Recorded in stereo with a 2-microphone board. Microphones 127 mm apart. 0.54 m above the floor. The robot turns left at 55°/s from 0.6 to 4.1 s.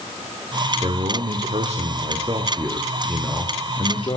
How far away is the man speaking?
About 1.0 m.